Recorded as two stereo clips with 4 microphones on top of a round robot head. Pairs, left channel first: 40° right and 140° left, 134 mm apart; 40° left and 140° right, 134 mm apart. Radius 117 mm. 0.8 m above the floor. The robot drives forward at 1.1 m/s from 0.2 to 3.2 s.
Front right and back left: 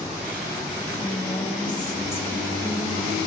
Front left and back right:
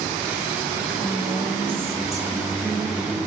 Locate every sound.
1.0 s a woman speaking: 65° right, 2 m; by 3.3 s 135° right, 2.5 m